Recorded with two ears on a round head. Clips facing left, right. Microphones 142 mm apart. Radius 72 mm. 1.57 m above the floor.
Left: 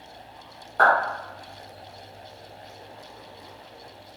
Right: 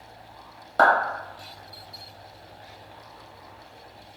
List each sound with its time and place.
0.8 s a clap: 65° right (ahead or behind), 1.5 m